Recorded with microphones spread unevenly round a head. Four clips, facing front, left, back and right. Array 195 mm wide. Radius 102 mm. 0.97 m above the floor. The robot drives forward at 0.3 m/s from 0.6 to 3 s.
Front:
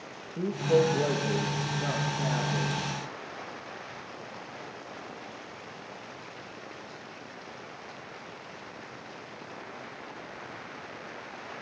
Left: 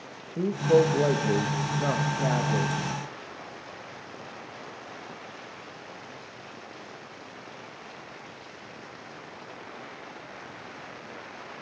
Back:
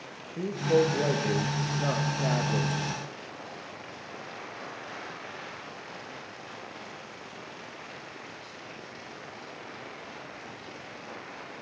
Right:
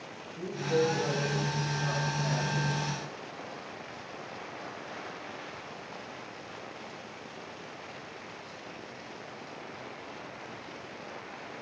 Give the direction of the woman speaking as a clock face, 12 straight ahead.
9 o'clock.